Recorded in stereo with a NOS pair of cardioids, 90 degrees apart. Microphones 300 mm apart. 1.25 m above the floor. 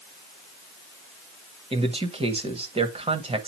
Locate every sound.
1.7 s a man speaking: 20° right, 1.4 m